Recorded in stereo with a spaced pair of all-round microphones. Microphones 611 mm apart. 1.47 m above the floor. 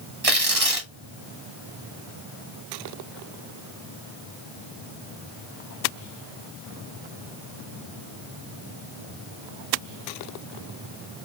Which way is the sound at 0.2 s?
65° right (ahead or behind).